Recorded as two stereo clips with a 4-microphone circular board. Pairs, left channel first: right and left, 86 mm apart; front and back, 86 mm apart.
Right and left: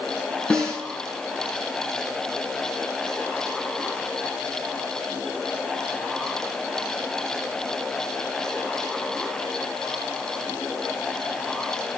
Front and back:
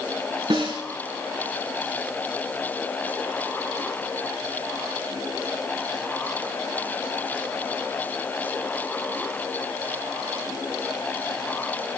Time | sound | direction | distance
0.5 | a snare drum | 165° right | 3.5 m